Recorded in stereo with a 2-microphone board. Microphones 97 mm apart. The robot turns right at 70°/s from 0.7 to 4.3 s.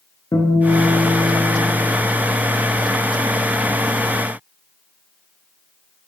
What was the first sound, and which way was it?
A guitar, 60° left.